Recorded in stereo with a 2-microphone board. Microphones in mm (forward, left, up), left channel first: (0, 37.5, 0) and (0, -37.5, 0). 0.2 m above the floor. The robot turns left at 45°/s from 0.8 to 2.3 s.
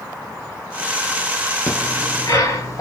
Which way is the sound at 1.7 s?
25° left (ahead or behind).